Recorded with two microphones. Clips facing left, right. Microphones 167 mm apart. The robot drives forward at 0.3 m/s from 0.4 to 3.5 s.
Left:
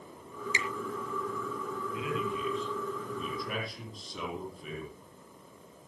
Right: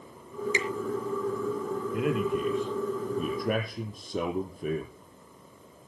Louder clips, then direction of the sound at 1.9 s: Right 8 dB; 55° right (ahead or behind).